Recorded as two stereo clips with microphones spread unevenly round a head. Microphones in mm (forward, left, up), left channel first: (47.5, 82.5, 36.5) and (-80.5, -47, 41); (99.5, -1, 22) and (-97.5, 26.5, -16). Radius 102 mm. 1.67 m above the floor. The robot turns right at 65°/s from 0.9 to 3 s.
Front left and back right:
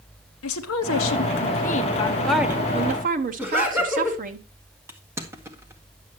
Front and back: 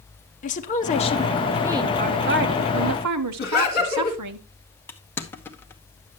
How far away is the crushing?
About 0.9 m.